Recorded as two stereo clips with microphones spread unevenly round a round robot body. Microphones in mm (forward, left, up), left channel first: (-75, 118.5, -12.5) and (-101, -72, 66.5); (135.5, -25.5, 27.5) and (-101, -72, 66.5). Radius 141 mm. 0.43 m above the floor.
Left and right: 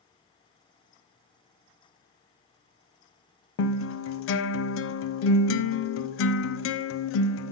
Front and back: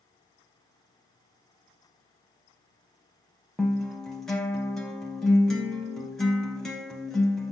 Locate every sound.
3.6 s a guitar: 100° left, 0.6 m